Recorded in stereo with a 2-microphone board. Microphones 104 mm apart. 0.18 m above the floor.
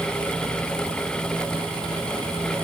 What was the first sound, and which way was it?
Only background noise.